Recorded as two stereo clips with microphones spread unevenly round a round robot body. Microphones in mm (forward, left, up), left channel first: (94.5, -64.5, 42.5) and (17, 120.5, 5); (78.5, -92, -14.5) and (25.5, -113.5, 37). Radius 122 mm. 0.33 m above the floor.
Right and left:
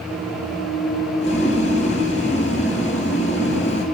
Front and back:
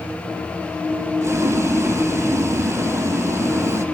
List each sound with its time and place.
1.2 s boiling: 130° right, 3 m